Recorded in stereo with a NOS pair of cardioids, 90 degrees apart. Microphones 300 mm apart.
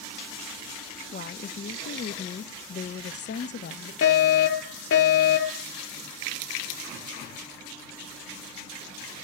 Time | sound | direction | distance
1.1 | a woman speaking | 35° left | 0.9 m
4.0 | a fire alarm | 50° left | 4.5 m